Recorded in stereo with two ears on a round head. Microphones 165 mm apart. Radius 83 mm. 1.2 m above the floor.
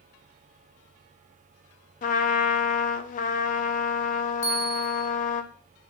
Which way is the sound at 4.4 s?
15° left (ahead or behind).